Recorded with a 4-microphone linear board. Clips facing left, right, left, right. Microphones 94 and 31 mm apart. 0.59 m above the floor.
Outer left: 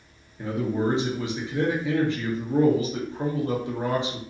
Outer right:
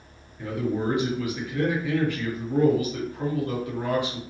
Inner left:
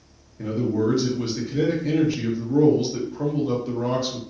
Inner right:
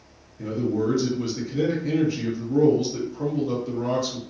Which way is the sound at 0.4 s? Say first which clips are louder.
Outer left 1 dB, inner left 2 dB; 25° left (ahead or behind).